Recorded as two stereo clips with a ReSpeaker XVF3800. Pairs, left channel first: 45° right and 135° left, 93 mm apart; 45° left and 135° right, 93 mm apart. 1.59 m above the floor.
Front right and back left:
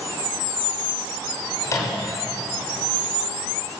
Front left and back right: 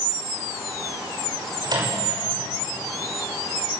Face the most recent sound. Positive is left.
turn(degrees=-95)